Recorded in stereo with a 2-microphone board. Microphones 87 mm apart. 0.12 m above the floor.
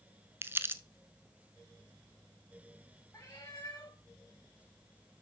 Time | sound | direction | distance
0.4 | crumpling | 25° right (ahead or behind) | 0.7 m
3.1 | a cat meowing | 40° left (ahead or behind) | 6.5 m